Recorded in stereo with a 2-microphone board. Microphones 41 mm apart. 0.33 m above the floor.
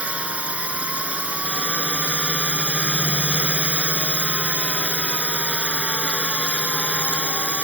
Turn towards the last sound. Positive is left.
turn(degrees=-35)  # may be behind; listen again after turning